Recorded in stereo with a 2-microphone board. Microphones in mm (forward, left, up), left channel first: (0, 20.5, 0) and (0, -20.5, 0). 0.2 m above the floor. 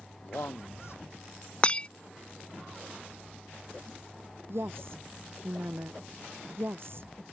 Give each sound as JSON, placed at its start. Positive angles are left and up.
{"t": 0.2, "sound": "a man speaking", "side_deg": 70}
{"t": 1.6, "sound": "breaking glass", "side_deg": 25}
{"t": 4.5, "sound": "a woman speaking", "side_deg": -60}